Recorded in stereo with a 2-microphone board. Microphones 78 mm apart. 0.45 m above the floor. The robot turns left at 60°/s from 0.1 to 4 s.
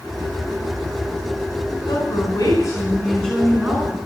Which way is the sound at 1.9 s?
90° left.